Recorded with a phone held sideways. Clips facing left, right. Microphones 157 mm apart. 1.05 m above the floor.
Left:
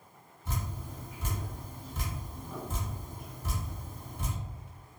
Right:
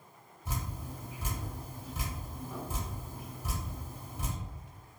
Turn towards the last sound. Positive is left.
turn(degrees=-15)  # may be behind; listen again after turning